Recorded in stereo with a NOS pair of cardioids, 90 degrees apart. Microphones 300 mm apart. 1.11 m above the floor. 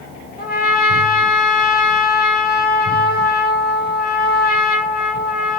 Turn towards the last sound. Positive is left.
turn(degrees=30)